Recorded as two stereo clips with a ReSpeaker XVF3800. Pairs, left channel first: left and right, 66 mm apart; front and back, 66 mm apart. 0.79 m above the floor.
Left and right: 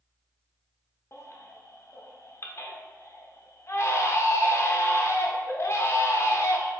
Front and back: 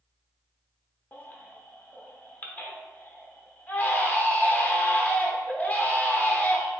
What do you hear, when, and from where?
1.1 s a baby crying: 55° left, 0.5 m